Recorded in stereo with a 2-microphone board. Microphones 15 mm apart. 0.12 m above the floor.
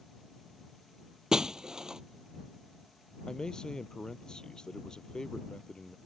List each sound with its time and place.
1.3 s breaking glass: 40° right (ahead or behind)
3.3 s a man speaking: 60° left (ahead or behind)